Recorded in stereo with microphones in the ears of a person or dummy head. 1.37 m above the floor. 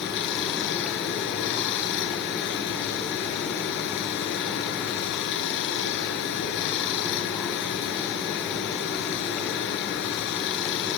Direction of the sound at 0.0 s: 60° left (ahead or behind).